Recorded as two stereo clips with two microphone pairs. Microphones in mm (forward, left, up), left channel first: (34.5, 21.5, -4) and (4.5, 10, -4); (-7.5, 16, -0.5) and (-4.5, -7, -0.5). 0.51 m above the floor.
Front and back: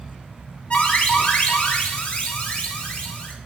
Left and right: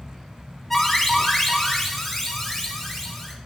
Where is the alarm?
20° left, 1.8 m.